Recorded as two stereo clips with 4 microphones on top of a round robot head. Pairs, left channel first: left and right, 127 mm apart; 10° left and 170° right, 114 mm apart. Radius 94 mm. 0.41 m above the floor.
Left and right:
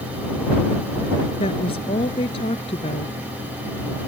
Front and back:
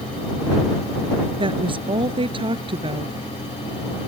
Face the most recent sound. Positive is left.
turn(degrees=145)